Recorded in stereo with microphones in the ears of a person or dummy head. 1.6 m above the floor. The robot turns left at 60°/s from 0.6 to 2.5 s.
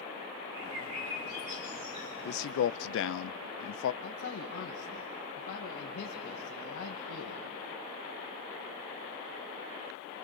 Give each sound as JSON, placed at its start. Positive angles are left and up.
{"t": 0.6, "sound": "a bird", "azimuth_deg": -70, "distance_m": 5.0}
{"t": 2.2, "sound": "a man speaking", "side_deg": 55, "distance_m": 0.7}
{"t": 4.0, "sound": "a man speaking", "side_deg": 55, "distance_m": 1.8}